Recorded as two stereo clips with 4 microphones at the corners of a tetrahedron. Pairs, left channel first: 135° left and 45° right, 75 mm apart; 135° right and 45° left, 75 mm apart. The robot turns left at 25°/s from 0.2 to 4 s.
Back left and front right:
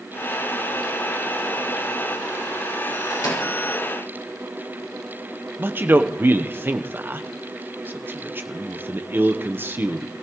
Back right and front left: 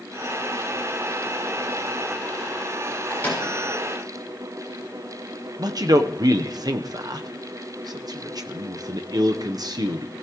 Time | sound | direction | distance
3.1 | a microwave | 160° left | 6 m
5.6 | a man speaking | 15° left | 0.9 m